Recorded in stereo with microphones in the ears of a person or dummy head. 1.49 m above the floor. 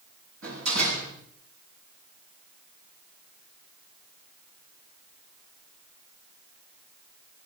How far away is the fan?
I don't hear a fan.